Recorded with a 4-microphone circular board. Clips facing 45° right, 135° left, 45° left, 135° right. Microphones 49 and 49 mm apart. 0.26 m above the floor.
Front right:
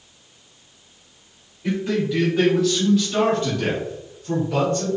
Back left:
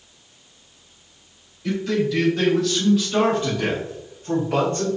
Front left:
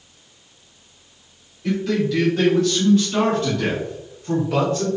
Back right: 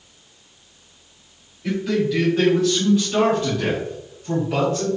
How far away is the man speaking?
About 1.6 m.